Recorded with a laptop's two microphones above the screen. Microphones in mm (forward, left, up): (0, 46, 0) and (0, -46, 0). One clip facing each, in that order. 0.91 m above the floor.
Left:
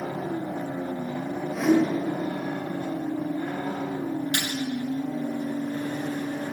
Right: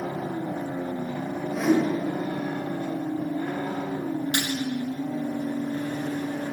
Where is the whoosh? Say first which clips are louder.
Left 1 dB; 5° right (ahead or behind), 2 m.